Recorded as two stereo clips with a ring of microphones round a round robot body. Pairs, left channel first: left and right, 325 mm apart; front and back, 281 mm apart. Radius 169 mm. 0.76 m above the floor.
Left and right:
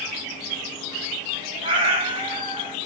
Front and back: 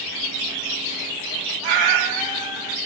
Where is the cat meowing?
165° right, 0.8 m.